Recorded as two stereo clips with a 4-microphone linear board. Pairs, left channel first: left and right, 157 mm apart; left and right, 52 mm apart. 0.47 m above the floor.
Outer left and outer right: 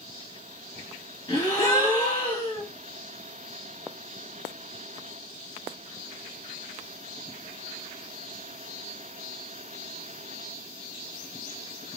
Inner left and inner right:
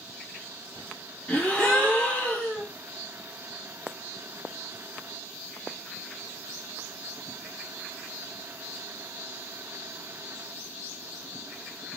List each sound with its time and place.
1.3 s a gasp: 20° left (ahead or behind), 1.4 m